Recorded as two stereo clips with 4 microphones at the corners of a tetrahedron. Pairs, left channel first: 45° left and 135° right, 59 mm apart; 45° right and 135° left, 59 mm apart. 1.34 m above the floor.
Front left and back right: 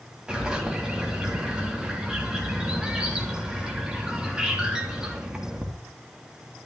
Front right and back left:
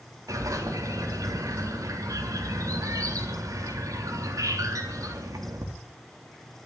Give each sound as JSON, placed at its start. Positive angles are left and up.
{"t": 0.3, "sound": "a bird", "azimuth_deg": 150, "distance_m": 3.5}